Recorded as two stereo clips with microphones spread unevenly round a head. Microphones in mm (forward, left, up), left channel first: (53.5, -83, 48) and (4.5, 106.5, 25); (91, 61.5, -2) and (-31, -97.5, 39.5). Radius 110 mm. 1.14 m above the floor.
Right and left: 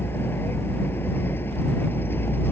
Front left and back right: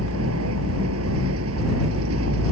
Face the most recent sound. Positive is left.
turn(degrees=-155)